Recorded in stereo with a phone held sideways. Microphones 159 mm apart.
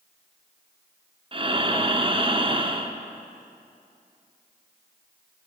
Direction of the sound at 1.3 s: 35° right (ahead or behind).